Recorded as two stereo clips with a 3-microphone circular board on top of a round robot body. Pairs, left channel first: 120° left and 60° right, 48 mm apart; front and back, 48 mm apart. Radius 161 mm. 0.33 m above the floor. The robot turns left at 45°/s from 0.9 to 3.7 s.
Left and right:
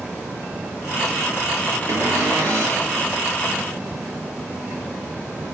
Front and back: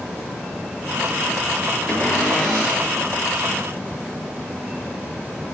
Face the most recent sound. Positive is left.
turn(degrees=-150)